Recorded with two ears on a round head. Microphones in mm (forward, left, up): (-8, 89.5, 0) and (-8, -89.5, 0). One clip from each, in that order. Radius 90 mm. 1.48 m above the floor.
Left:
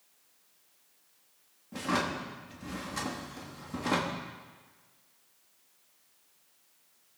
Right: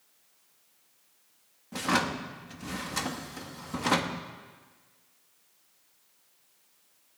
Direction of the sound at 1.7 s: 30° right (ahead or behind).